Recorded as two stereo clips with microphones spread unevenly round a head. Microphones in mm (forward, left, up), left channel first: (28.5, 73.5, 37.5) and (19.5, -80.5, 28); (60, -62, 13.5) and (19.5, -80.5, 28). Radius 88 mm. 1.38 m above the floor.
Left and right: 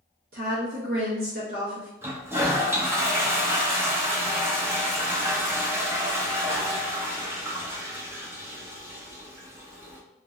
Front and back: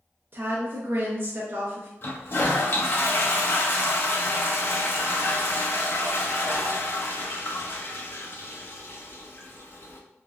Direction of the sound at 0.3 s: 130° right.